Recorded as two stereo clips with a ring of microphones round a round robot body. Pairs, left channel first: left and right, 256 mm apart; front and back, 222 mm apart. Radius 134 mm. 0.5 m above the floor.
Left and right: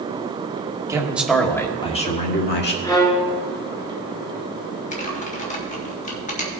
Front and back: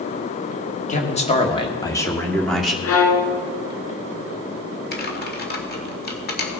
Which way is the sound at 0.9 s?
20° right.